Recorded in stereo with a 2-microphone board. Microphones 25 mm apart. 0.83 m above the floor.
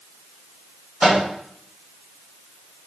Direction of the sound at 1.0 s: 45° right (ahead or behind).